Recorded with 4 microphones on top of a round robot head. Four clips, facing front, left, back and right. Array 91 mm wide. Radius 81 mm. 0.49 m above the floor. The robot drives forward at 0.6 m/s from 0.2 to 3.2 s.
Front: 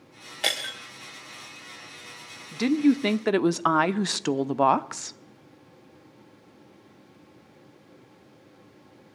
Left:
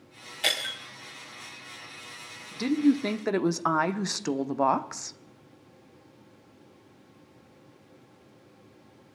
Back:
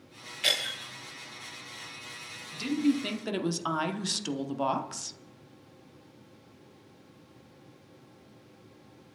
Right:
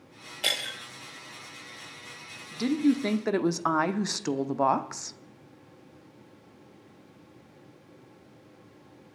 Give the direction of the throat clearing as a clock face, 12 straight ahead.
I don't hear throat clearing.